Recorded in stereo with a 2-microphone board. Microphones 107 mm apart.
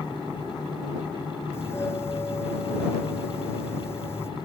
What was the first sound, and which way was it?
A doorbell, 25° left (ahead or behind).